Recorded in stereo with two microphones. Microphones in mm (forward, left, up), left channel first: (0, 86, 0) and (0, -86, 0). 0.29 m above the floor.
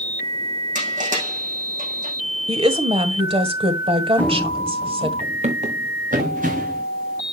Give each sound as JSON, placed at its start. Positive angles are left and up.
{"t": 0.8, "sound": "crushing", "side_deg": -50, "distance_m": 5.5}
{"t": 2.5, "sound": "a woman speaking", "side_deg": -35, "distance_m": 1.4}
{"t": 4.2, "sound": "running footsteps", "side_deg": 10, "distance_m": 0.7}